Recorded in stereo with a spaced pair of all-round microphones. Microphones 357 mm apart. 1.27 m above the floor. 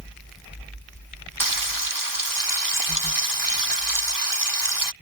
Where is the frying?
65° right (ahead or behind).